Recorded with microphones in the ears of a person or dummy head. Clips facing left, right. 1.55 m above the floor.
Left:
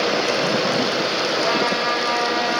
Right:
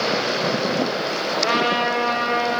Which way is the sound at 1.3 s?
55° right (ahead or behind).